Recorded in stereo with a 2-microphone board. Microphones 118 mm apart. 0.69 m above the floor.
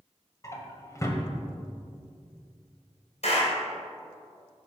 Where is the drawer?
25° left (ahead or behind), 1.2 m.